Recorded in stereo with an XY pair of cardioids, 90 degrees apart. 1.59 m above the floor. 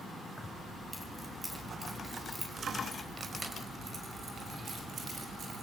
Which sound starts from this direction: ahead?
Keys jangling, at 0.4 s.